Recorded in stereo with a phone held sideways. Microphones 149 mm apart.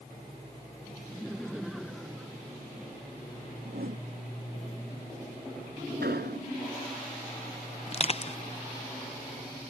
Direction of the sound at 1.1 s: Centre (ahead or behind).